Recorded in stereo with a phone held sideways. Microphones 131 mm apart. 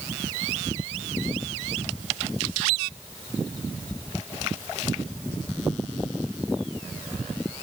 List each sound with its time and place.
Only background noise.